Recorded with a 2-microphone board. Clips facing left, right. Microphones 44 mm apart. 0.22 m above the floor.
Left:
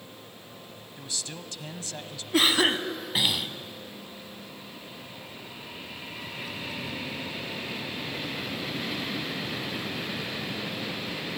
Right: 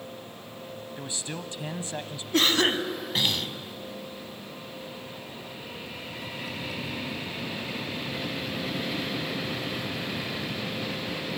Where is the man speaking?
25° right (ahead or behind), 1.1 m.